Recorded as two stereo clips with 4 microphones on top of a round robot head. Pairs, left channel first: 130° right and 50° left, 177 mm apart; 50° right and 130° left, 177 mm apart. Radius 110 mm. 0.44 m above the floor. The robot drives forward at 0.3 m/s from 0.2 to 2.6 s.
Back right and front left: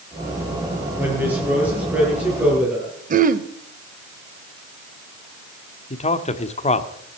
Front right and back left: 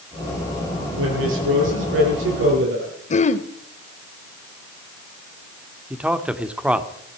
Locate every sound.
1.0 s a woman speaking: 130° left, 9.5 m
3.1 s throat clearing: 5° left, 0.9 m
5.9 s a man speaking: 150° right, 1.3 m